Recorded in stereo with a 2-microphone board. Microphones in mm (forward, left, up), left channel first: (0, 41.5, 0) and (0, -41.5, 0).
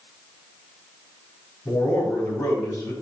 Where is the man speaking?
45° left (ahead or behind), 5 m.